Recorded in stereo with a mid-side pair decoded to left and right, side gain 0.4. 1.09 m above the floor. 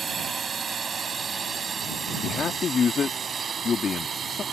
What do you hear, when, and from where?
0.0 s a drone: 45° right; by 4.5 s 50° right
2.2 s a man speaking: 50° left